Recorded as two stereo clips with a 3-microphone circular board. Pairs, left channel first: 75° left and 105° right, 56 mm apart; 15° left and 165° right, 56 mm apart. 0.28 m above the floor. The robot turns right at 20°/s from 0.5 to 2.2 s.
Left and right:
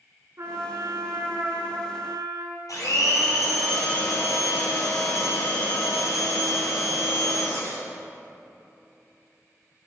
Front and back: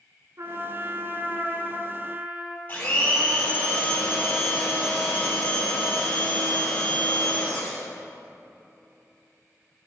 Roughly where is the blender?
Left.